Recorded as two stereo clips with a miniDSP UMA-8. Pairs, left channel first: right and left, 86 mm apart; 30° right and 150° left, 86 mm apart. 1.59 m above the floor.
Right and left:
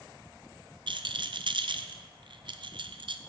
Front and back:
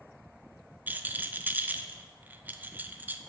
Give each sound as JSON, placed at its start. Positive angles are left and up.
{"t": 0.9, "sound": "a rattle", "azimuth_deg": 85, "distance_m": 0.5}